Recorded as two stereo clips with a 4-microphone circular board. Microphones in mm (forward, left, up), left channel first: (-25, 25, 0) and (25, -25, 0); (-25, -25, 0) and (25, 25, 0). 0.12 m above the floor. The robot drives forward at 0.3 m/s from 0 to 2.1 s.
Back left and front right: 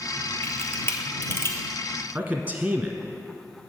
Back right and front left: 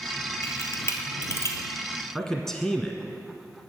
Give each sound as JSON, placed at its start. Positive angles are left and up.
{"t": 0.4, "sound": "a camera shutter", "azimuth_deg": -175, "distance_m": 1.2}
{"t": 2.1, "sound": "a man speaking", "azimuth_deg": -70, "distance_m": 1.1}